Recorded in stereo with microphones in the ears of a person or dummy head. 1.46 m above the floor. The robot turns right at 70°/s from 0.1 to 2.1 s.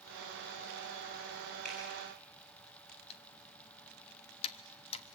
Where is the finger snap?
5° left (ahead or behind), 9.5 m; by 1.8 s 5° right (ahead or behind), 9.5 m.